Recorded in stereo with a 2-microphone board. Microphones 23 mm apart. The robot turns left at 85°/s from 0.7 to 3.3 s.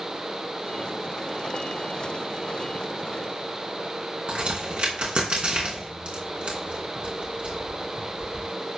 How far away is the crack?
About 4 m.